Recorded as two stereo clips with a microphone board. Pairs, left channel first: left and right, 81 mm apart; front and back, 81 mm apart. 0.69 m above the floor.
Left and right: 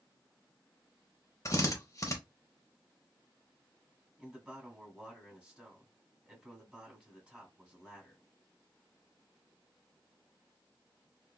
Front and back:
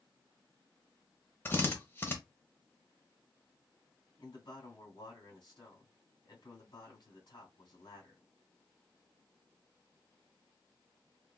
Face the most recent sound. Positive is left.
turn(degrees=-20)